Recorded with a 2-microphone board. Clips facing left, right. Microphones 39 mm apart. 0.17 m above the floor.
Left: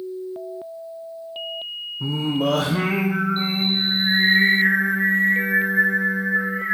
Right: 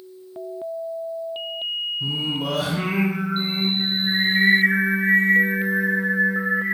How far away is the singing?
About 2.5 m.